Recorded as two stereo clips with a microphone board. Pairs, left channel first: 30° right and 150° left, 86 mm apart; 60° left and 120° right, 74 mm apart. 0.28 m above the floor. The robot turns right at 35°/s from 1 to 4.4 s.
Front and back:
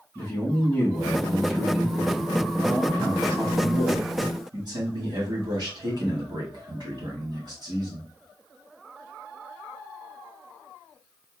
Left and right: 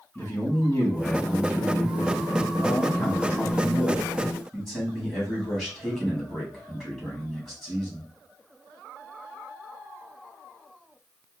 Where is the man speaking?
30° left, 1.9 m; by 8.1 s 145° left, 1.9 m.